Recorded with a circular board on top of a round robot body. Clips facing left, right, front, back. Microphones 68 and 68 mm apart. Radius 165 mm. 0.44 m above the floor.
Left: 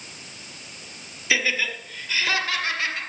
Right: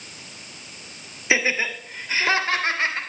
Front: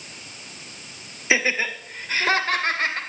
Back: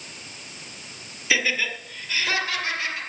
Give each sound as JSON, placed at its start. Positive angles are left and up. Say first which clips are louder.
{"t": 1.3, "sound": "laughter", "louder": "right 2 dB, front 2 dB", "azimuth_deg": -45, "distance_m": 1.6}